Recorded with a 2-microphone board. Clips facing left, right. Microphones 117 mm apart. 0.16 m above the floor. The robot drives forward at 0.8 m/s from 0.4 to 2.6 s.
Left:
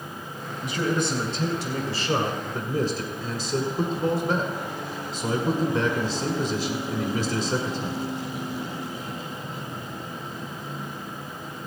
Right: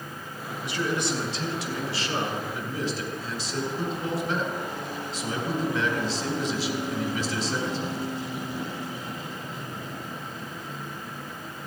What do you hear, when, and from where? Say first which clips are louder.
0.6 s a man speaking: left 3 dB; 25° left (ahead or behind), 2.5 m; by 8.1 s 30° left (ahead or behind), 1.9 m